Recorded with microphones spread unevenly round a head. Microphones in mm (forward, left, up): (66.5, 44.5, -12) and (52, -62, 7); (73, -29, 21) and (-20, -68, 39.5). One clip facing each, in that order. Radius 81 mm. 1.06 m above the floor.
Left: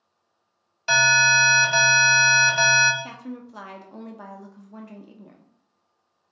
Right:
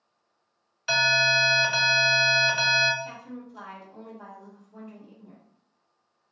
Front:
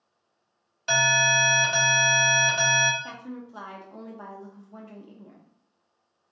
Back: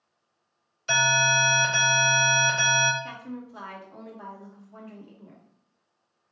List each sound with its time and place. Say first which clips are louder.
0.9 s an alarm: left 5 dB, even; 35° left, 2.5 m
3.0 s a woman speaking: left 2 dB, back 1 dB; 90° left, 0.8 m